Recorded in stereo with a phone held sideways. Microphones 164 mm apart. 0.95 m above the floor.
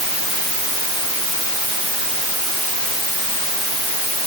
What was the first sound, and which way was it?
Only background noise.